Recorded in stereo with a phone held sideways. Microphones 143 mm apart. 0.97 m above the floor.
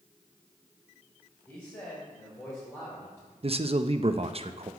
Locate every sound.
1.5 s a man speaking: 15° left (ahead or behind), 4 m
3.4 s a man speaking: 45° right (ahead or behind), 0.5 m